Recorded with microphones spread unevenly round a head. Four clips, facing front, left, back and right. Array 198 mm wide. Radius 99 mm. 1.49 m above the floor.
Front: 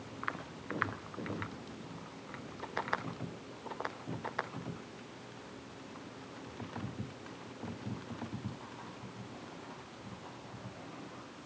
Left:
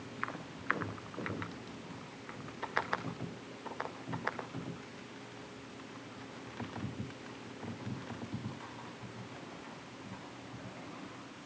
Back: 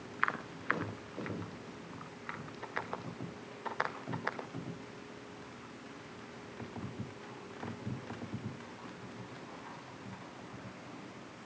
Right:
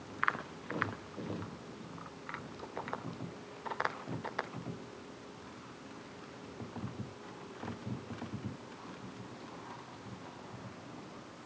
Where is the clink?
I don't hear a clink.